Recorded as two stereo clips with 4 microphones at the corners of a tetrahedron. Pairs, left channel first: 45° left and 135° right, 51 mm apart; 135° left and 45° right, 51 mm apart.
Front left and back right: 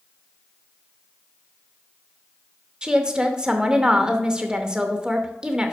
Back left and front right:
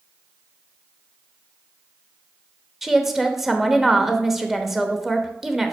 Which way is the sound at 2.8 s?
110° right.